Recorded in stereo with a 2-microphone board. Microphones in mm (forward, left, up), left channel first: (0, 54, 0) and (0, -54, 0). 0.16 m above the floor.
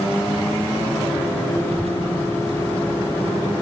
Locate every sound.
1.7 s a child speaking: 70° right (ahead or behind); by 3.5 s 65° right (ahead or behind)